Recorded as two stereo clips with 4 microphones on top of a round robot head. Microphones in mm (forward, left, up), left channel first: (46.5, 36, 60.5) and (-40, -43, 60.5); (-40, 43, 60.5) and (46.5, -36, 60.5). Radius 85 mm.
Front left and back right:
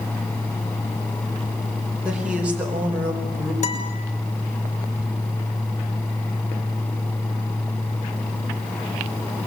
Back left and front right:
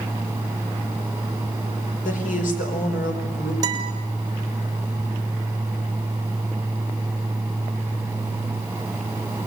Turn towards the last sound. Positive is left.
turn(degrees=15)